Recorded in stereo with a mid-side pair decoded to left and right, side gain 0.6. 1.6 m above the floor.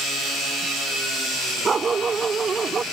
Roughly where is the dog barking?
Ahead right.